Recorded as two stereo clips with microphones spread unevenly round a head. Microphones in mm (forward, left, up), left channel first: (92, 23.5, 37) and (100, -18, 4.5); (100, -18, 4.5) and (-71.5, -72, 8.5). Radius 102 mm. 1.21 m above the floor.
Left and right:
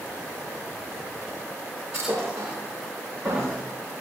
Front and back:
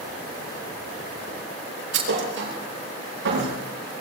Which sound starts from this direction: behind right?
A thud, at 1.9 s.